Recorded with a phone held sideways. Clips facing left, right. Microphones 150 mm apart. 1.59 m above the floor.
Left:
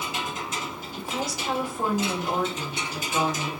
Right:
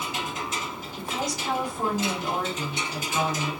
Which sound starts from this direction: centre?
A woman speaking, at 1.0 s.